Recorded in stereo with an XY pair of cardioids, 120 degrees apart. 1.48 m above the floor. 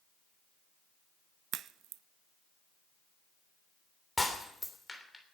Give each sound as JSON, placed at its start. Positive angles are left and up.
{"t": 1.5, "sound": "a crack", "azimuth_deg": -65, "distance_m": 0.5}
{"t": 4.2, "sound": "breaking glass", "azimuth_deg": 10, "distance_m": 3.0}